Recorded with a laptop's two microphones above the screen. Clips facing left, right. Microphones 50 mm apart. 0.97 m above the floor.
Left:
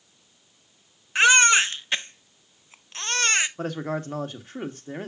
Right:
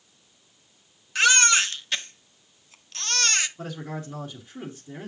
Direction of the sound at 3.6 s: 50° left (ahead or behind).